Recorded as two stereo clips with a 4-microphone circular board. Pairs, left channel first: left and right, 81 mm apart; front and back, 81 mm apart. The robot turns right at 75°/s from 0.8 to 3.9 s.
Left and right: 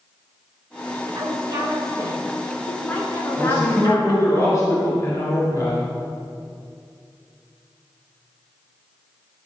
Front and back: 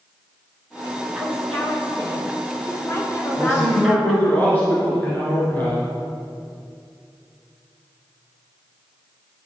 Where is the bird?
No bird in this recording.